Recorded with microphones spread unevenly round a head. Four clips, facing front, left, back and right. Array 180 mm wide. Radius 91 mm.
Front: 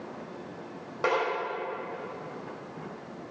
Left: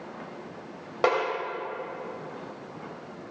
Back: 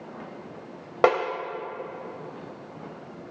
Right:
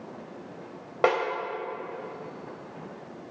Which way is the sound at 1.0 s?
170° right.